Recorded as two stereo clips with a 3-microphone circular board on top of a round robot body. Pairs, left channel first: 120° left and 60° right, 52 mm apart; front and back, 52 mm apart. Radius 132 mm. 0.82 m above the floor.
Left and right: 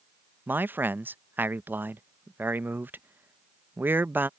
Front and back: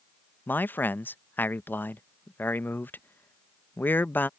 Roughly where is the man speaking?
Ahead right.